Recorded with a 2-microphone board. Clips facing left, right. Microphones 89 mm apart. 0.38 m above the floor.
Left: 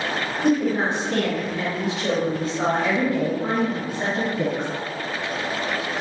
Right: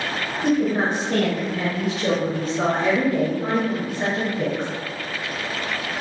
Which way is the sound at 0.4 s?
45° right (ahead or behind).